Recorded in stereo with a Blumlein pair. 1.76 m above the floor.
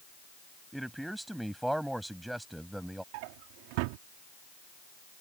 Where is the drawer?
45° right.